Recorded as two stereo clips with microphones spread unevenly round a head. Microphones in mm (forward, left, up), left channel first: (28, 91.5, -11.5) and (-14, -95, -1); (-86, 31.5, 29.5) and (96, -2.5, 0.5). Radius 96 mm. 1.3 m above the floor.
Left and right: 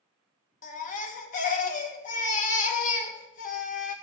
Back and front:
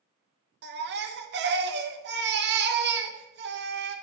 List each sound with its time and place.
0.6 s a baby crying: 25° left, 1.1 m